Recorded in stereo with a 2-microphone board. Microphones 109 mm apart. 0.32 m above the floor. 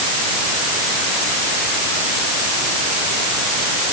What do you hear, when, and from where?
Only background noise.